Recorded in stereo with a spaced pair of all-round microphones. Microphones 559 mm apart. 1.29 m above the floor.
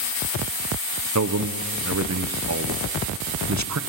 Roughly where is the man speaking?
Right.